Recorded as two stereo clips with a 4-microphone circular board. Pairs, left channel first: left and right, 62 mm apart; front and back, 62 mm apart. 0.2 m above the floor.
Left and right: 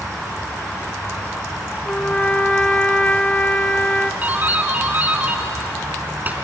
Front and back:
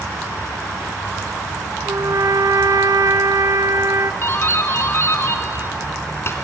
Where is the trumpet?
160° left, 0.8 m.